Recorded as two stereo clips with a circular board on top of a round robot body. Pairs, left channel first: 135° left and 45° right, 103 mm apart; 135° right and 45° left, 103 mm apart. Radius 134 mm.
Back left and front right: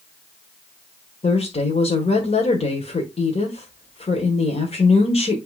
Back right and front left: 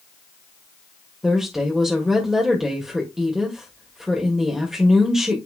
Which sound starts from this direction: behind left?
A woman speaking, at 1.2 s.